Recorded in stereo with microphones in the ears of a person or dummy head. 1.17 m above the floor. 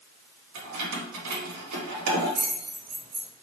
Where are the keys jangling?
85° right, 1.3 m.